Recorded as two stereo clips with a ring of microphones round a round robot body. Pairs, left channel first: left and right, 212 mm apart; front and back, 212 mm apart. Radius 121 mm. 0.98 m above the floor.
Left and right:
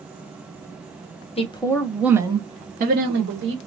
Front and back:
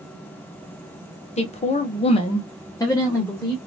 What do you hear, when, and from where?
1.4 s a woman speaking: 40° left, 0.7 m; by 3.6 s 80° right, 1.1 m